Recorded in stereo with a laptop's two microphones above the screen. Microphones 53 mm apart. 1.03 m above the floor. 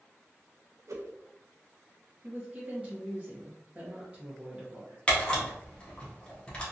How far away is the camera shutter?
About 0.8 m.